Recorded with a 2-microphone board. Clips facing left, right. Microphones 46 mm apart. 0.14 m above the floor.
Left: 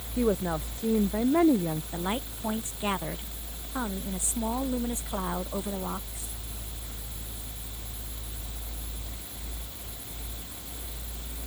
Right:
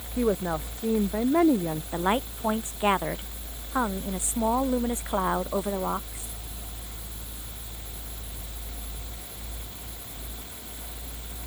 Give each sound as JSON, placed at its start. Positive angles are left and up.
{"t": 0.2, "sound": "a woman speaking", "side_deg": -10}
{"t": 1.9, "sound": "a woman speaking", "side_deg": -35}